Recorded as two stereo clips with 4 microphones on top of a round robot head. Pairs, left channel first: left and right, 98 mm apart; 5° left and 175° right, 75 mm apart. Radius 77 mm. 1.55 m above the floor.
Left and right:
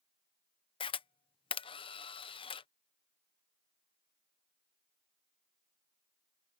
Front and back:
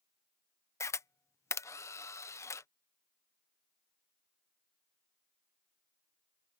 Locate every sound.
0.8 s a camera shutter: 55° left